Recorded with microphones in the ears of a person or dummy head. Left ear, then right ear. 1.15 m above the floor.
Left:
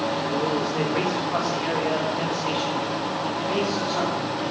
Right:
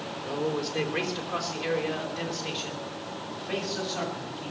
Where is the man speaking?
25° right (ahead or behind), 3.5 m; by 4.5 s 10° right (ahead or behind), 8 m.